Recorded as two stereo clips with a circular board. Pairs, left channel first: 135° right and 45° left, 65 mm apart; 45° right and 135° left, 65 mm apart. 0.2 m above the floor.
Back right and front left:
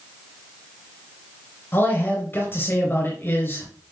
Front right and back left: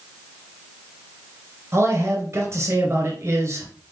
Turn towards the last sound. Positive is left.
turn(degrees=175)